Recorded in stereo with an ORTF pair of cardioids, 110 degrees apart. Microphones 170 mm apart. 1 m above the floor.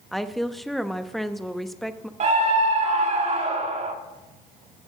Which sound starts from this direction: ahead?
A woman speaking, at 0.1 s.